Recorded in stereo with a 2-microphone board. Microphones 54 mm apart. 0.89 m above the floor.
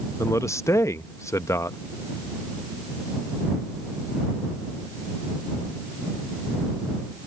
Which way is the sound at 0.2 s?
65° left (ahead or behind).